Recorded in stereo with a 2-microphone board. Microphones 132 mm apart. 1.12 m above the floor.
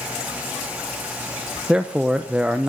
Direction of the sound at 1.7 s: 5° right (ahead or behind).